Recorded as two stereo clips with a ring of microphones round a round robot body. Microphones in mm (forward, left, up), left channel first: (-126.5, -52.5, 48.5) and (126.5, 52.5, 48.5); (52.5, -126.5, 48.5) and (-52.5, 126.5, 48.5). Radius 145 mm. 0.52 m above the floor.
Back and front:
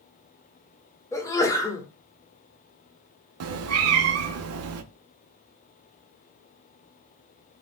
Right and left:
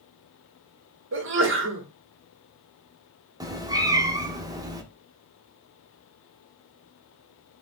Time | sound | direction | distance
1.1 | a sneeze | 130° left | 1.0 m
3.4 | a cat meowing | 40° left | 0.5 m